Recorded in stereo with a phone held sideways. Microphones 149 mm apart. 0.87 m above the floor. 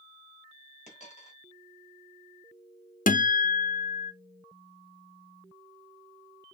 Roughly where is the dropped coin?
Left.